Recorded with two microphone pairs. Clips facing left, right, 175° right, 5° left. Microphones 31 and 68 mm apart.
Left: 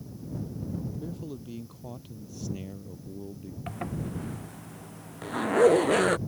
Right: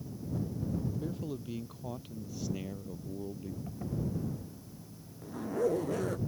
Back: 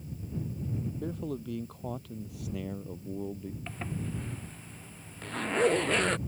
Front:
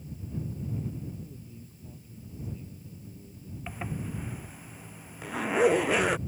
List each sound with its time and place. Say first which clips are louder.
1.0 s a man speaking: even, back 8 dB; 170° right; by 3.6 s 165° right
3.7 s a zipper: left 3 dB, front 3 dB; 85° left